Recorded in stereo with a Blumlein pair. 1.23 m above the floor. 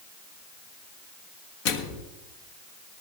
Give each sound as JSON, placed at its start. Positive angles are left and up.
{"t": 1.6, "sound": "a microwave", "azimuth_deg": 45, "distance_m": 1.4}